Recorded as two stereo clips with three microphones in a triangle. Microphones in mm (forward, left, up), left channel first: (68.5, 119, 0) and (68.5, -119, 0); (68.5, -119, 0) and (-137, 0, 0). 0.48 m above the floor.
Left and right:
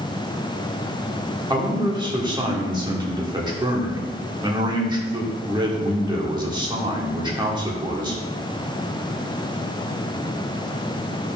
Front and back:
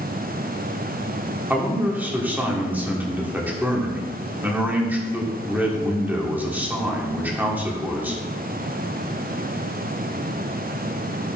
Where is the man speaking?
135° right, 1.4 m.